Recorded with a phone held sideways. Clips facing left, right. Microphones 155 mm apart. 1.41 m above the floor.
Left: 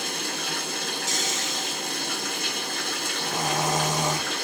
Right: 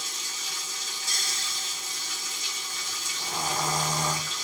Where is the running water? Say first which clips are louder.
Left 12 dB; 65° left (ahead or behind), 0.7 m.